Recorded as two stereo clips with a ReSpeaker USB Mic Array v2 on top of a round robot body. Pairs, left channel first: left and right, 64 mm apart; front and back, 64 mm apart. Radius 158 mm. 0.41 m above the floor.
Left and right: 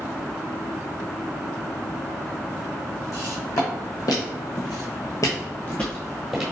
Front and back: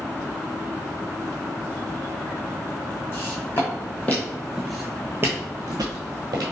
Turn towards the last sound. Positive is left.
turn(degrees=-175)